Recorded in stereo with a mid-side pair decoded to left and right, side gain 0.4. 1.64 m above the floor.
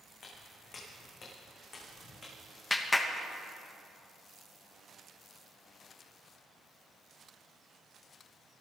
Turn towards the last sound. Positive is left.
turn(degrees=20)